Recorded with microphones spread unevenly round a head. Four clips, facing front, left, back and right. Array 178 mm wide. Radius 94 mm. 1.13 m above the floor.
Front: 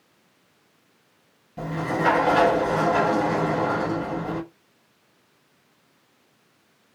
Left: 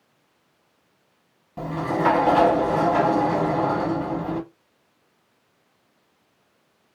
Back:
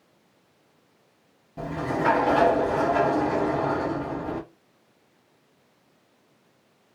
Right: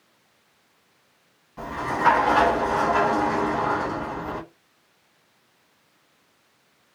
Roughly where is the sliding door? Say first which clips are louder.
Left 2 dB, front 1 dB; behind left.